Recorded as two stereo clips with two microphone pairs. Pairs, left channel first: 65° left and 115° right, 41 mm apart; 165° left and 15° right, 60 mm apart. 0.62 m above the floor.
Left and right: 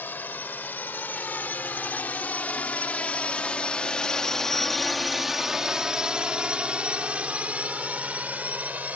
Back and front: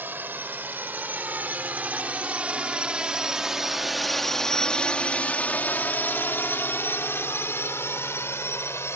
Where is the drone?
35° left; by 9.0 s 160° right.